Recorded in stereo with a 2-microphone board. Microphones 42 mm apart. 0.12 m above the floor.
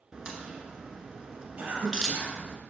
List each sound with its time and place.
0.1 s a crack: 20° right (ahead or behind), 1.3 m
1.6 s a cough: 40° right (ahead or behind), 3 m